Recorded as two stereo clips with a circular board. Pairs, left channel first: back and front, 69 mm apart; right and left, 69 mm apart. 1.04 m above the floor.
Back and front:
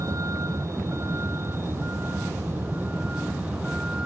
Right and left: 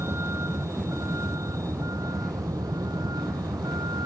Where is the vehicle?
40° left; by 4.0 s 75° left.